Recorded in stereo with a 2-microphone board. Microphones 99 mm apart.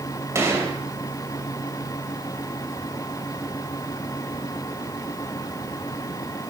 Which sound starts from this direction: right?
A gunshot, at 0.3 s.